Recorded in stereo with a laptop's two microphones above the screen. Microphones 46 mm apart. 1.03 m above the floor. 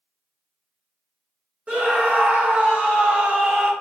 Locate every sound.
1.7 s a scream: 30° right (ahead or behind), 1.1 m